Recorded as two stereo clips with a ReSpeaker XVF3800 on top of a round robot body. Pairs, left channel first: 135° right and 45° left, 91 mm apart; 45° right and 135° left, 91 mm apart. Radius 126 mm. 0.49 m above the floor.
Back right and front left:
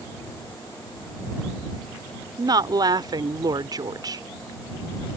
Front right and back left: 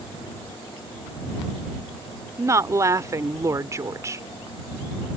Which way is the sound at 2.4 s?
80° left.